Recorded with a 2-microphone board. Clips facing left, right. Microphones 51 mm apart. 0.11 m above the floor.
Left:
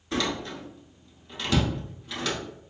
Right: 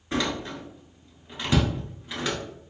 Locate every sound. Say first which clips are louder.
0.1 s a door slam: right 1 dB; 20° right (ahead or behind), 1.0 m